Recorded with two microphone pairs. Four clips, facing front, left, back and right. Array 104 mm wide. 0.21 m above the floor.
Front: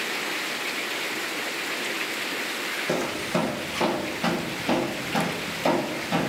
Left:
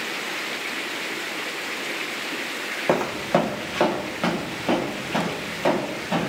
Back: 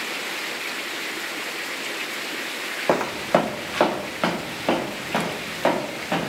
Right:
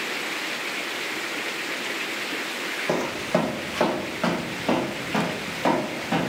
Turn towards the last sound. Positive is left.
turn(degrees=-170)